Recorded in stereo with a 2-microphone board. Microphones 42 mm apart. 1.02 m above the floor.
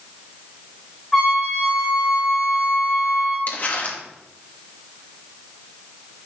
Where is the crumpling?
45° left (ahead or behind), 1.4 m.